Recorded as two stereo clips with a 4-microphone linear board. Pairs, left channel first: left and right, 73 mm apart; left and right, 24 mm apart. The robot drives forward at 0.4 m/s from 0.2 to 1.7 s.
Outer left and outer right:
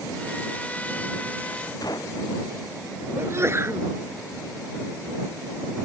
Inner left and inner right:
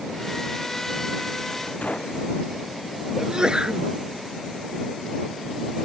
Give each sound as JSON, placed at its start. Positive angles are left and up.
{"t": 1.8, "sound": "a gunshot", "side_deg": 65}
{"t": 3.2, "sound": "a sneeze", "side_deg": -40}